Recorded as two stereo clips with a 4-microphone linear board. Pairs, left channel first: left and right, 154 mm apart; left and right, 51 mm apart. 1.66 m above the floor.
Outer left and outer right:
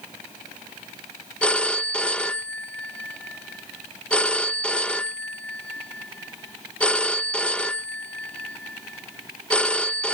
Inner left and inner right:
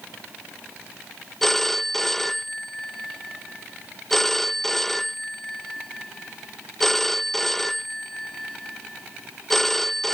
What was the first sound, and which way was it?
A phone ringing, 5° left (ahead or behind).